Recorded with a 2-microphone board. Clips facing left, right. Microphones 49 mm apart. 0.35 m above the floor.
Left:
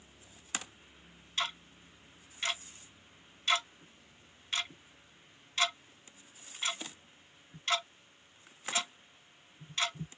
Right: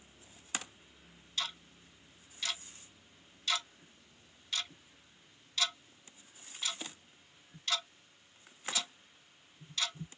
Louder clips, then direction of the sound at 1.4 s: Left 4 dB; 35° left (ahead or behind).